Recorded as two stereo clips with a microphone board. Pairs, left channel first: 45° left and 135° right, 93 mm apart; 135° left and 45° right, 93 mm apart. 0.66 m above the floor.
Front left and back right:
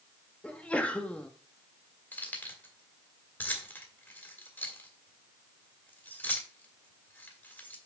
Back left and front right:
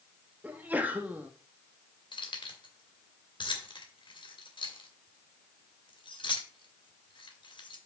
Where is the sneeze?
5° right, 1.1 m.